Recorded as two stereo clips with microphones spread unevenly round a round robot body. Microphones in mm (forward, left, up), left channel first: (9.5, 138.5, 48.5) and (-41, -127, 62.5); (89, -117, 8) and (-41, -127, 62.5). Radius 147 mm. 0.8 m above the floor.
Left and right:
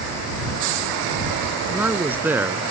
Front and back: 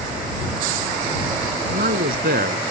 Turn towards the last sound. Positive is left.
turn(degrees=175)